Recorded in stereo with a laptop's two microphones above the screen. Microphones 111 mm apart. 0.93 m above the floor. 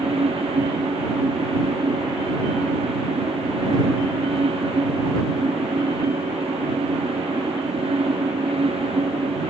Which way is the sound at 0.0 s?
60° right (ahead or behind).